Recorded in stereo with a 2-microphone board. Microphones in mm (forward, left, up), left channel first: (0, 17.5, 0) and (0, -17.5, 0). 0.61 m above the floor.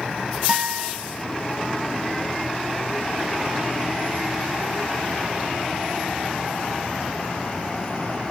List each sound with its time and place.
0.5 s a guitar: 25° right (ahead or behind), 2.5 m